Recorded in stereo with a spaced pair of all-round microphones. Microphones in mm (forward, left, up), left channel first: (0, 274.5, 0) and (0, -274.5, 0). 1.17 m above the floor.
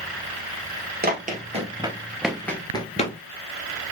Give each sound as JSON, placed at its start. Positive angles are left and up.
{"t": 1.0, "sound": "running footsteps", "side_deg": -15, "distance_m": 1.5}